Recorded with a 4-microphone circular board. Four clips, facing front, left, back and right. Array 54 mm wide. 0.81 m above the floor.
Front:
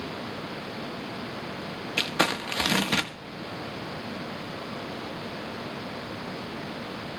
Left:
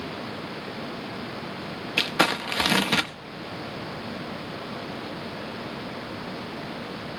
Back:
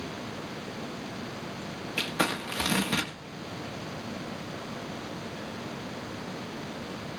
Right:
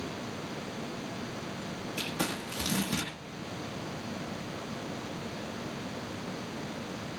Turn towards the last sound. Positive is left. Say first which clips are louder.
# left 12 dB, front 3 dB
turn(degrees=70)